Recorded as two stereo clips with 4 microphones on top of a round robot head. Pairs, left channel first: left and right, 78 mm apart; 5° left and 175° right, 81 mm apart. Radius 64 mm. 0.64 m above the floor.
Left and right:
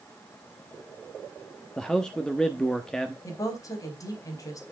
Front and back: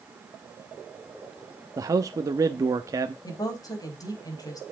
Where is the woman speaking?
45° left, 4.5 m.